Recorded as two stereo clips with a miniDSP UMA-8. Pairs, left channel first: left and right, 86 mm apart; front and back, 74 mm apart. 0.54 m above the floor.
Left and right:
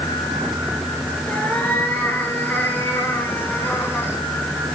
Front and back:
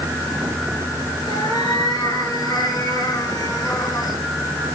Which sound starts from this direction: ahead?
A cat meowing, at 1.3 s.